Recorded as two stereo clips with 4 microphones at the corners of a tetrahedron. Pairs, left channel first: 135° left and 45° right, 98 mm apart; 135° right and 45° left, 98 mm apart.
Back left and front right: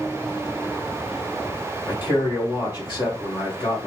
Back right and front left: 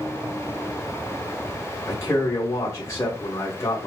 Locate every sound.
1.9 s a man speaking: 170° left, 1.9 m